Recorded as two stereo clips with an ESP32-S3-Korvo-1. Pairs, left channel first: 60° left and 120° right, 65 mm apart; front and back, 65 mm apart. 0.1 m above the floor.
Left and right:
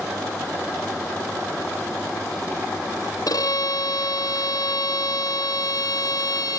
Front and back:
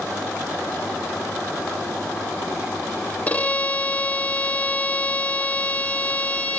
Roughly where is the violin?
Ahead left.